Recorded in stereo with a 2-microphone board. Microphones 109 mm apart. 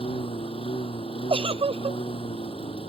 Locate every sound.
0.0 s a lawn mower: 60° left (ahead or behind)
1.3 s a giggle: 55° right (ahead or behind)